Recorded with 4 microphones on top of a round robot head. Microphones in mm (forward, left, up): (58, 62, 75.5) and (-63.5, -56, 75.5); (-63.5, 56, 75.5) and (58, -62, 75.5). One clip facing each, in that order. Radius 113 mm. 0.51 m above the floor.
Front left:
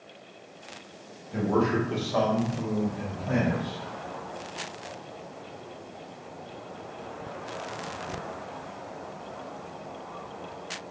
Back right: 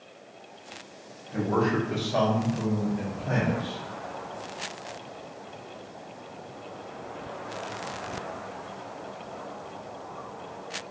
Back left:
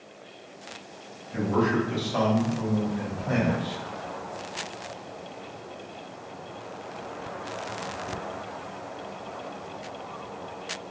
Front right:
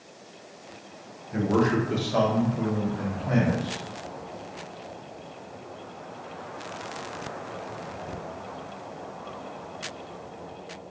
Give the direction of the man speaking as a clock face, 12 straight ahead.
1 o'clock.